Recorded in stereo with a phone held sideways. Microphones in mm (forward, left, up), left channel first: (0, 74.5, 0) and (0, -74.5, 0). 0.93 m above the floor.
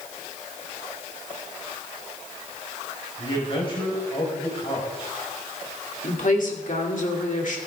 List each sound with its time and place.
3.2 s a man speaking: 40° left (ahead or behind), 4 m
6.0 s a woman speaking: 65° left (ahead or behind), 2.5 m